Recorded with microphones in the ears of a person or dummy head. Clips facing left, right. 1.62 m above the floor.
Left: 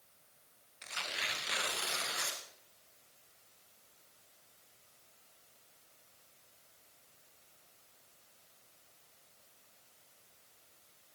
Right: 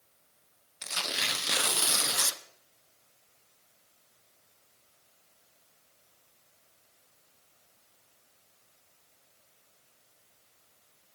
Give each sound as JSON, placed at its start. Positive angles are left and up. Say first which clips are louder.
{"t": 0.8, "sound": "tearing paper", "louder": "right 7 dB", "side_deg": -60, "distance_m": 0.7}